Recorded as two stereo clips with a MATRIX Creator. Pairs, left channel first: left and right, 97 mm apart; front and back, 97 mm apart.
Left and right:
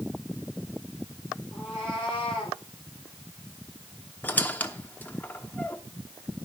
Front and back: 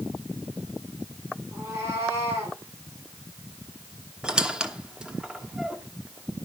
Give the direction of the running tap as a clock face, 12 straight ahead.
I don't hear a running tap.